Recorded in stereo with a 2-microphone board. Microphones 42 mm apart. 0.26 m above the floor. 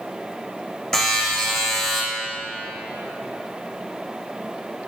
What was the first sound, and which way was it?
A buzzer, 10° left (ahead or behind).